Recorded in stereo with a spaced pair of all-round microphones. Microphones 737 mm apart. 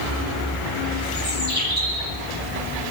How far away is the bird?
About 7 m.